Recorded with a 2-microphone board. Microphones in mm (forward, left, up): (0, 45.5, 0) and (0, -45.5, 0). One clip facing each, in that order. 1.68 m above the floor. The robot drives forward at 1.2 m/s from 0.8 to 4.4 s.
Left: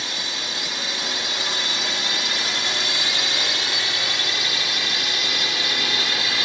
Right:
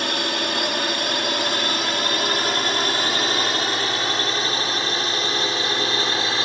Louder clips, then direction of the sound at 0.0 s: Right 8 dB; 60° right (ahead or behind).